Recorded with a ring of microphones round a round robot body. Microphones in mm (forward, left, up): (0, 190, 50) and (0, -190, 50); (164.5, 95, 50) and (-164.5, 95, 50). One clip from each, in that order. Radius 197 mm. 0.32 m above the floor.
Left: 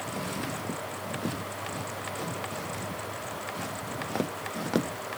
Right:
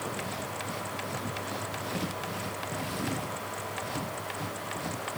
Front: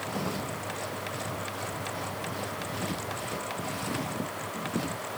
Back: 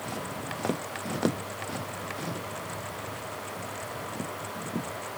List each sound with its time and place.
Only background noise.